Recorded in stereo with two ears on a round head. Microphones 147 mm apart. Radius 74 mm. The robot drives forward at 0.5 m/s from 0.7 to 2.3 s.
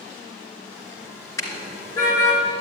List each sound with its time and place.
1.4 s a car horn: 20° left (ahead or behind), 2.5 m; by 2.4 s 15° left (ahead or behind), 3 m